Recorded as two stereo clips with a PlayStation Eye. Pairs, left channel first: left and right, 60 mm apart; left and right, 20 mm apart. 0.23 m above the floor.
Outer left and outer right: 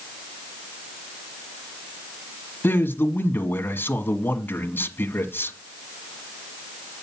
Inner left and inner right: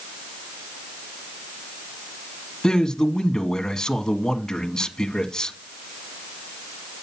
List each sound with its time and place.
2.6 s a man speaking: 35° left (ahead or behind), 1.5 m